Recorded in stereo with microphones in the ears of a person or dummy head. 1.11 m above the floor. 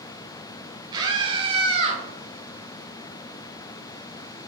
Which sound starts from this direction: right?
A scream, at 0.9 s.